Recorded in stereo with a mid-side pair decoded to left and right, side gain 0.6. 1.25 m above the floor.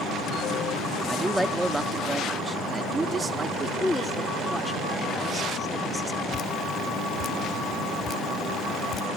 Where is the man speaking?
5° right; by 3.7 s 30° right.